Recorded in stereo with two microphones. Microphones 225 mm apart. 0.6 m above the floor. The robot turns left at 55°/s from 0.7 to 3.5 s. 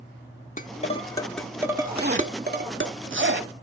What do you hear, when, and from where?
0.6 s dishes clattering: 35° left (ahead or behind), 0.9 m; by 2.9 s 60° right (ahead or behind), 0.9 m
1.9 s a zipper: 40° right (ahead or behind), 0.8 m; by 3.5 s 45° right (ahead or behind), 0.8 m